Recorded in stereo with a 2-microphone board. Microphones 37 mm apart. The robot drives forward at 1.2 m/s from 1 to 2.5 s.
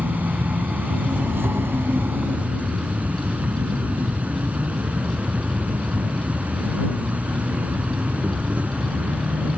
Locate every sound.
0.0 s an insect: 60° right (ahead or behind); by 9.6 s 40° right (ahead or behind)